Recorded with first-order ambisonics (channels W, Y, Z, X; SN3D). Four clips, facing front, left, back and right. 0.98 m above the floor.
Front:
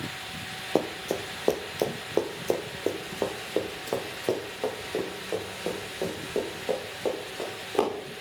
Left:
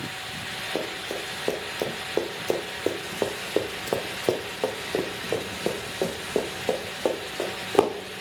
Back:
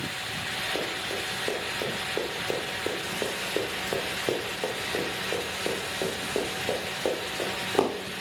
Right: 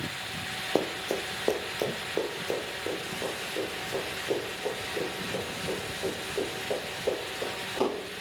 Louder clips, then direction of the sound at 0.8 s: Right 4 dB, front 2 dB; 30° right.